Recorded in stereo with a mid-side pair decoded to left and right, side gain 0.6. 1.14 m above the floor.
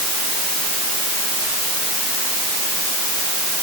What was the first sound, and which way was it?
Only background noise.